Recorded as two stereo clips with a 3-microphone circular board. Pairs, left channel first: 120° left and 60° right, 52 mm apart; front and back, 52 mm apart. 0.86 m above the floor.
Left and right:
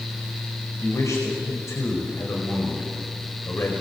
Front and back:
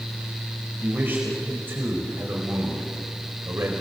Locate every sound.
0.8 s a man speaking: 130° left, 4.5 m; by 3.8 s 150° left, 4 m